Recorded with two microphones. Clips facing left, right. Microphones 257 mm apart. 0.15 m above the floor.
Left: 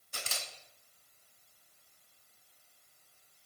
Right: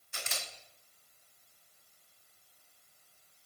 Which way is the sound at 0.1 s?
40° left (ahead or behind).